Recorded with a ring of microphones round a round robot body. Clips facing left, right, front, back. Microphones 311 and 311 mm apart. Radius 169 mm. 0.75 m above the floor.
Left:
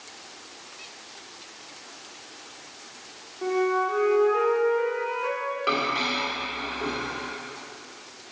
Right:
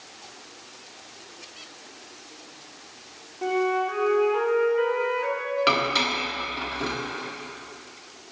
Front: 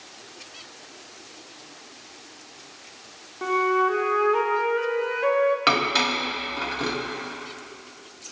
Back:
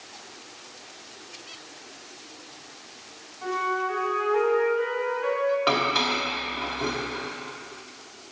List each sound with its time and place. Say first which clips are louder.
3.4 s a flute: even, front 7 dB; 15° right, 0.9 m
5.7 s dishes clattering: right 2 dB, even; 45° right, 0.9 m